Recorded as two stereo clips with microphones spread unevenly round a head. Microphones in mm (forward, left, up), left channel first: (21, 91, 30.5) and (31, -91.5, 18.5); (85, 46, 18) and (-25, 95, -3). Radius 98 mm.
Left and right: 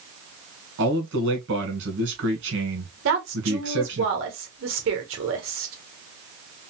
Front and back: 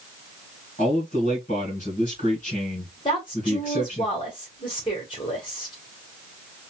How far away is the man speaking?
About 1.8 m.